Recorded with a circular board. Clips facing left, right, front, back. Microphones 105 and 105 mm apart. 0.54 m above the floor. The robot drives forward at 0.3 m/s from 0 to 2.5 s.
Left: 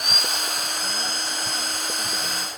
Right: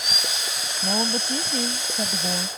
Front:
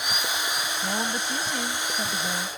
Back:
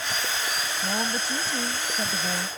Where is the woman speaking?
95° right; by 2.5 s 105° right.